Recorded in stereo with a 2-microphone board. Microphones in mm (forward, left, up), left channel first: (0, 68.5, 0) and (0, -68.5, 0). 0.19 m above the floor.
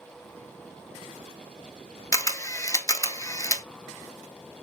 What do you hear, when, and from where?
2.1 s a camera shutter: 25° left (ahead or behind), 0.7 m